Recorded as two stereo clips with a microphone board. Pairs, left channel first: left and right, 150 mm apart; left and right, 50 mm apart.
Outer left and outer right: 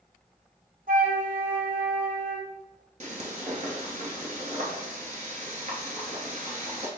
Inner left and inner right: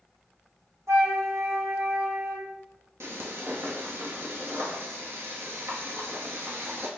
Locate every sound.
0.9 s a flute: 65° right (ahead or behind), 0.9 m
3.0 s frying: 55° right (ahead or behind), 0.7 m